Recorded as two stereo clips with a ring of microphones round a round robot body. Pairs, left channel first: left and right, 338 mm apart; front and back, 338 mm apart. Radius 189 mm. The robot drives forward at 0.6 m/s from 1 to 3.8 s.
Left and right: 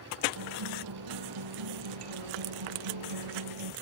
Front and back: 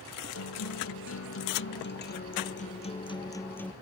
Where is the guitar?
50° right; by 3.7 s 85° right.